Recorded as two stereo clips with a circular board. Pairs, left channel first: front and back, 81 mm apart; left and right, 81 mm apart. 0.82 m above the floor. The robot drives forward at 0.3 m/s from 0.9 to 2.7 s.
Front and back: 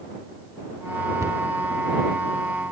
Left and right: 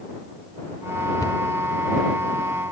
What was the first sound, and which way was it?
A cupboard door, 130° left.